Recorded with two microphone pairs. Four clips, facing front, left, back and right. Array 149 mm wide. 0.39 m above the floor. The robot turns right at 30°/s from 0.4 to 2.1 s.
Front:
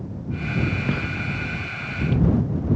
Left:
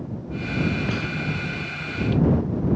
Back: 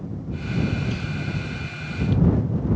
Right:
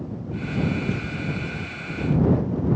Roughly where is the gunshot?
Ahead left.